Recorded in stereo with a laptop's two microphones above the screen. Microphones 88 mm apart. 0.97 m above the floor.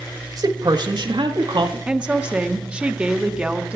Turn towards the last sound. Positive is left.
turn(degrees=-10)  # may be behind; listen again after turning